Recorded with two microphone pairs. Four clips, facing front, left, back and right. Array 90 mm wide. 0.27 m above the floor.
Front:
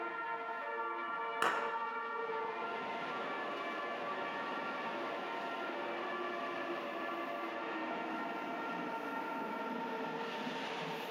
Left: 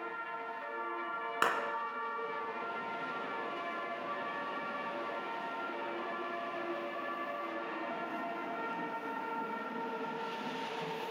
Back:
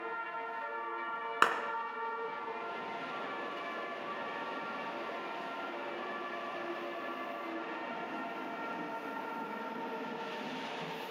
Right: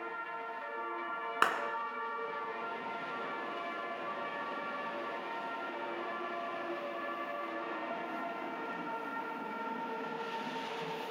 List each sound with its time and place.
1.4 s a clap: 155° right, 2.5 m